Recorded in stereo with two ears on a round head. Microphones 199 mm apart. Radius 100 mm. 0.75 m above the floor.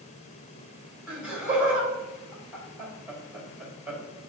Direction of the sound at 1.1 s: 5° right (ahead or behind).